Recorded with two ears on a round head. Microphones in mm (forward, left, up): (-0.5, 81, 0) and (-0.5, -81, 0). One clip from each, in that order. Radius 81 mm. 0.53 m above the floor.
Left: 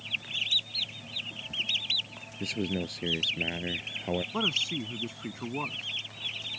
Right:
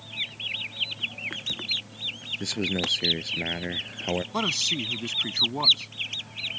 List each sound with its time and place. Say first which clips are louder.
2.4 s a man speaking: right 4 dB; 30° right (ahead or behind)
4.3 s a man speaking: right 3 dB; 75° right (ahead or behind)